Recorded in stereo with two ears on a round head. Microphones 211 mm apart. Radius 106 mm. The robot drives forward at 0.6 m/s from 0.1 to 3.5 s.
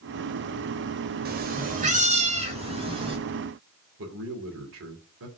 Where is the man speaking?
60° right (ahead or behind), 2.5 m.